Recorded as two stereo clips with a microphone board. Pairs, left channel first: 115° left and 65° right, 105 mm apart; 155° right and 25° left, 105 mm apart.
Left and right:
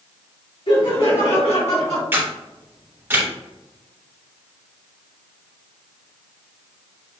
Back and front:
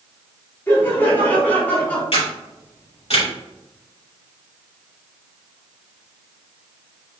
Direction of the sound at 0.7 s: 135° left.